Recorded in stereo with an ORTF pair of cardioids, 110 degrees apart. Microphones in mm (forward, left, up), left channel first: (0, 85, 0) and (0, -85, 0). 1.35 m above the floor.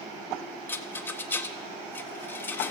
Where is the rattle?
10° left, 0.6 m.